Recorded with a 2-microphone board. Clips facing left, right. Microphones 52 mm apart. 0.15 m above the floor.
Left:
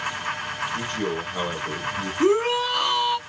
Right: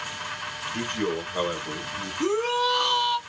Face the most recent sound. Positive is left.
turn(degrees=20)  # may be behind; listen again after turning